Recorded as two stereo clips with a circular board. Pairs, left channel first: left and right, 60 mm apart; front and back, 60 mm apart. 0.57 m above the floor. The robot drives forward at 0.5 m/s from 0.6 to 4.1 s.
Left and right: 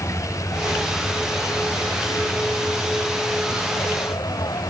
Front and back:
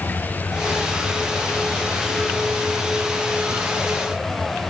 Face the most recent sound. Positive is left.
turn(degrees=90)